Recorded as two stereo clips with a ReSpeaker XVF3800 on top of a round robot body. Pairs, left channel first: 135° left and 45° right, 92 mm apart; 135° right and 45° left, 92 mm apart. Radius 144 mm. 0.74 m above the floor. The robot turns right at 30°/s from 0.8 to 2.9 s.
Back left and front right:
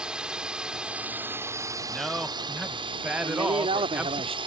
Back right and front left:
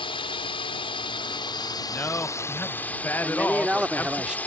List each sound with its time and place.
0.0 s a drone: 125° right; by 4.5 s 60° right
1.9 s a man speaking: 135° right; by 4.2 s 105° right
3.2 s a man speaking: 35° right